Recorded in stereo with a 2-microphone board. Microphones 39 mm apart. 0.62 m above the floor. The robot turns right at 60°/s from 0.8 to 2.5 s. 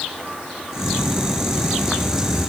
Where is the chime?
No chime in this recording.